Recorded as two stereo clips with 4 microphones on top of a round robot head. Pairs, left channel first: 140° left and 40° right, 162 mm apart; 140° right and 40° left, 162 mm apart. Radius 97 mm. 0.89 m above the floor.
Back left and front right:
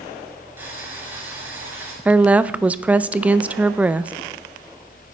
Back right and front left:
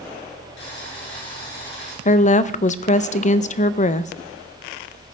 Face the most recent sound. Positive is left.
turn(degrees=-120)